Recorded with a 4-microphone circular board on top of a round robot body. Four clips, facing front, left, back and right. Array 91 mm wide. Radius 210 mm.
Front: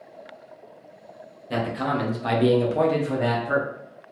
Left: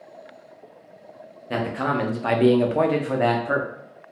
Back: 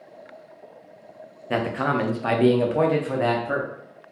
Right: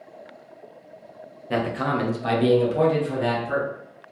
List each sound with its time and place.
1.5 s a man speaking: straight behind, 1.2 m; by 3.7 s 95° left, 1.5 m